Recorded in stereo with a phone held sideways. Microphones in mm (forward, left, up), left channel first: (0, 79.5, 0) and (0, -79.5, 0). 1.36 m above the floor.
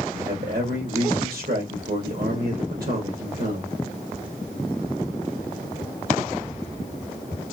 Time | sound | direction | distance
0.1 | a man speaking | 75° right (ahead or behind) | 1.0 m